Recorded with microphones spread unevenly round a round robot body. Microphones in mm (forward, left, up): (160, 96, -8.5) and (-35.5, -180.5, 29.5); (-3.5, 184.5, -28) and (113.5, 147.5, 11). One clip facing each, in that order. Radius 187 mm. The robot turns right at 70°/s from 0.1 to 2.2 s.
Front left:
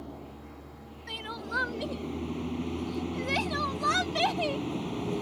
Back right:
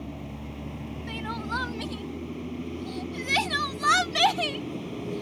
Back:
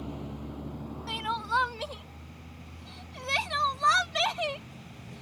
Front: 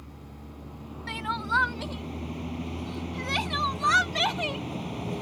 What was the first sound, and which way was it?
A vehicle, 175° right.